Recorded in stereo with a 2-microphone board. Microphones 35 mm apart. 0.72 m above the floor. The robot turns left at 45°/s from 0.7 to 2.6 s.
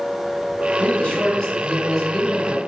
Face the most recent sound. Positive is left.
turn(degrees=-20)